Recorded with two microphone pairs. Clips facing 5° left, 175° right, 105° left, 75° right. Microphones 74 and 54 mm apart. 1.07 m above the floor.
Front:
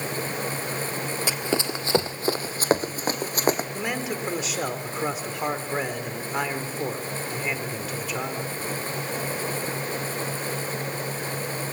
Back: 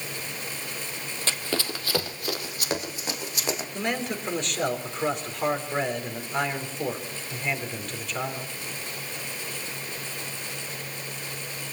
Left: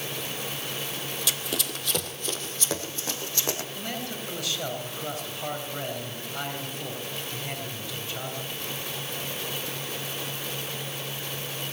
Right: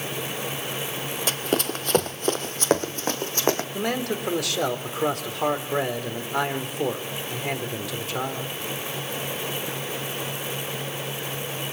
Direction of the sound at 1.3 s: 65° right.